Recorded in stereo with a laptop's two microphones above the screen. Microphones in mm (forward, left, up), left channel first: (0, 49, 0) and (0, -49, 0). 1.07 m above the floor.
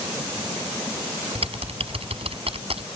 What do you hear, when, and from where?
1.4 s typing on a keyboard: 75° right (ahead or behind)